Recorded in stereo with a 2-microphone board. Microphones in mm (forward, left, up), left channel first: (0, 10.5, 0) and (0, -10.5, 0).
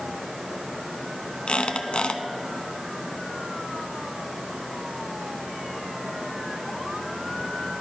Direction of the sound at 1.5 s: 65° left (ahead or behind).